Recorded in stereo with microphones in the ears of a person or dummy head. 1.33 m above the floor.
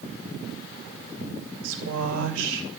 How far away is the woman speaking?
About 2.5 m.